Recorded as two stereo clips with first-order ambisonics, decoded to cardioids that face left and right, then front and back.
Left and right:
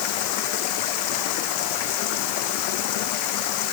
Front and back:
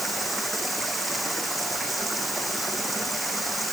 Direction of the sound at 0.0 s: 95° left.